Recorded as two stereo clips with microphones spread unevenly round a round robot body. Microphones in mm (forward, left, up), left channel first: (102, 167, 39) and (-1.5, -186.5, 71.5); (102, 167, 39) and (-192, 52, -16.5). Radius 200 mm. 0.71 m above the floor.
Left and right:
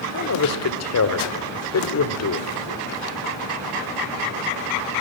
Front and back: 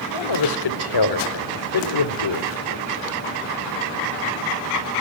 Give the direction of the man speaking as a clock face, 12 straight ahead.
11 o'clock.